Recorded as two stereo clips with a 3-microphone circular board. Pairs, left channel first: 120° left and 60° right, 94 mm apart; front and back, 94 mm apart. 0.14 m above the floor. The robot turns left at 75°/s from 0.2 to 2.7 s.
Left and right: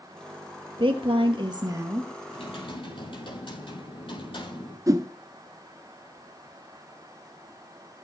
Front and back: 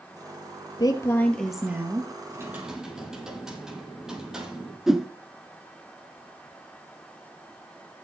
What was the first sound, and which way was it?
A woman speaking, 40° right.